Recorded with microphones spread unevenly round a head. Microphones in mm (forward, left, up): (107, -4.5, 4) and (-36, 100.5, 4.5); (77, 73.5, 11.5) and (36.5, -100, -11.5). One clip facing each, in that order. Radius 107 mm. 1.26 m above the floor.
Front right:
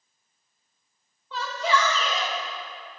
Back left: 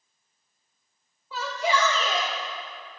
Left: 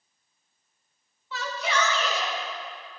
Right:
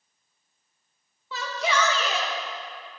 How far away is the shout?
About 1.6 m.